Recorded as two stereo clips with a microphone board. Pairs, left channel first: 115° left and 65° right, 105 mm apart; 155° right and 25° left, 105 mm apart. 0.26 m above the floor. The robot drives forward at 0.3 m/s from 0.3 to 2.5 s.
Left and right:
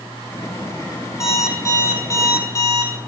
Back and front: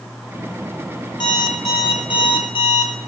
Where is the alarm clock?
170° left, 1.1 m.